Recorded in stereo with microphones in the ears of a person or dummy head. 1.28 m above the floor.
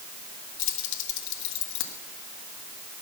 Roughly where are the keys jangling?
Left.